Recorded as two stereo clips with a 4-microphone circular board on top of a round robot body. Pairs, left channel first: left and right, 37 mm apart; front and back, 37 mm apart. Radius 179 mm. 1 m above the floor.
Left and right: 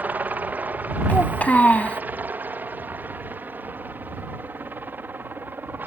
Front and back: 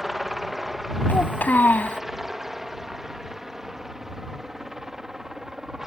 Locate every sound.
0.0 s a helicopter: 95° right; by 5.9 s 105° right
1.1 s a child speaking: 40° left